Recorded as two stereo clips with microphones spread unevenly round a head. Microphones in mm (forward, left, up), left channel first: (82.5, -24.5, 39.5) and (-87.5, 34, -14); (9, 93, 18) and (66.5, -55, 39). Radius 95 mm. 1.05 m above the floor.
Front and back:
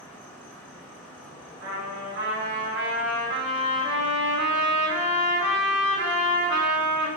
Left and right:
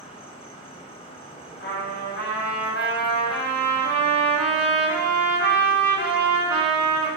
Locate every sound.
0.0 s an insect: 55° left, 1.4 m
1.6 s a trumpet: 135° left, 3 m